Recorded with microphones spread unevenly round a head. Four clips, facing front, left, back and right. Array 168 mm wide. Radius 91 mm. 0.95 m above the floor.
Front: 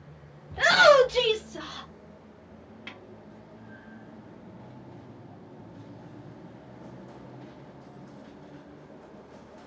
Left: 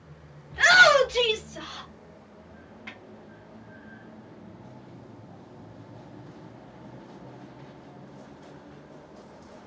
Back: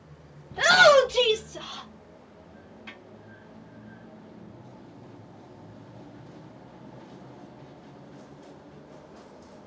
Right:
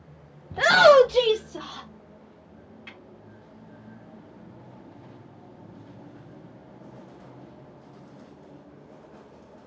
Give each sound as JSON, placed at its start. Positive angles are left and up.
{"t": 0.5, "sound": "a shout", "azimuth_deg": -95, "distance_m": 0.9}
{"t": 2.9, "sound": "a snare drum", "azimuth_deg": 35, "distance_m": 3.0}